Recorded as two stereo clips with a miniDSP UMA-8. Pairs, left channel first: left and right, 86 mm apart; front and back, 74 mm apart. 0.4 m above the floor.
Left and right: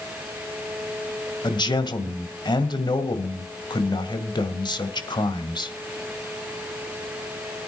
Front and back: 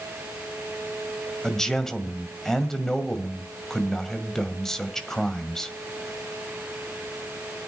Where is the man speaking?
80° left, 1.7 m.